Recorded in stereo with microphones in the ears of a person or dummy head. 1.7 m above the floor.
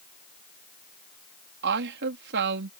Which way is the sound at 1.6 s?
65° right (ahead or behind).